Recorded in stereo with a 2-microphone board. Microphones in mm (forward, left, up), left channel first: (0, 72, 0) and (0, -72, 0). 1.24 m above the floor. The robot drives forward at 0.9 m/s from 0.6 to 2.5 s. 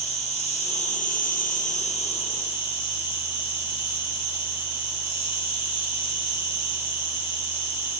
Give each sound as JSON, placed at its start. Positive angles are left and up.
{"t": 0.0, "sound": "an insect", "side_deg": 45, "distance_m": 1.0}